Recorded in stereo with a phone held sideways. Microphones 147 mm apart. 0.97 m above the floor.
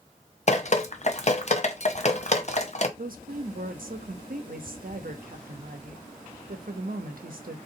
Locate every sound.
0.5 s dripping: 50° left (ahead or behind), 0.7 m
3.0 s a woman speaking: 75° right (ahead or behind), 0.8 m